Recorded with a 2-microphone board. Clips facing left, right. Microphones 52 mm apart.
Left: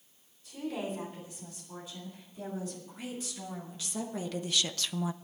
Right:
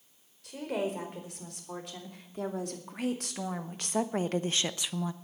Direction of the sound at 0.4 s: 70° right (ahead or behind).